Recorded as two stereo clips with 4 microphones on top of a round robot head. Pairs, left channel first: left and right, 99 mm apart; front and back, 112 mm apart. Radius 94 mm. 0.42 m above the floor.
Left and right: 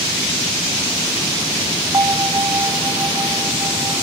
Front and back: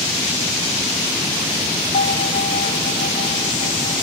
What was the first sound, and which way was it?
A bell, 35° right.